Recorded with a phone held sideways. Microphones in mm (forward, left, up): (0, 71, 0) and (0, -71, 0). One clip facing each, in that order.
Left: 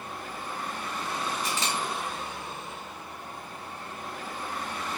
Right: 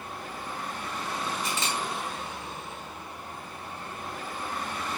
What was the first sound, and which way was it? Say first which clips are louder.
A camera shutter: even; 35° left (ahead or behind).